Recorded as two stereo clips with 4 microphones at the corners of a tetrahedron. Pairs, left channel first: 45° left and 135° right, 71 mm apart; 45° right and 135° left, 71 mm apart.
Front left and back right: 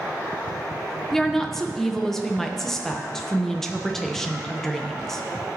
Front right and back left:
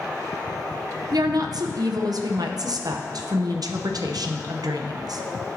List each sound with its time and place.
1.1 s a woman speaking: 130° left, 0.8 m